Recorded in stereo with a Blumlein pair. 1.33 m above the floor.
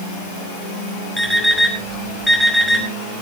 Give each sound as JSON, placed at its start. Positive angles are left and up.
{"t": 1.2, "sound": "an alarm clock", "azimuth_deg": 5, "distance_m": 5.5}